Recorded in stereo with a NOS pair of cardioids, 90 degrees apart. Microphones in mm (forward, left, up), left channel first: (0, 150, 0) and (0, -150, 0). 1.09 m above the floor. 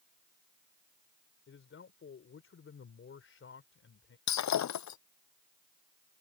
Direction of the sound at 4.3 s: 65° left.